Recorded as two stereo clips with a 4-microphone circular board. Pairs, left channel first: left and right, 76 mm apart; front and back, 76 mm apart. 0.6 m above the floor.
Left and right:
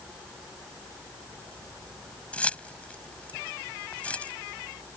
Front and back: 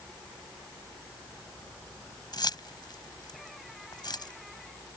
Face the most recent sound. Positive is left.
turn(degrees=15)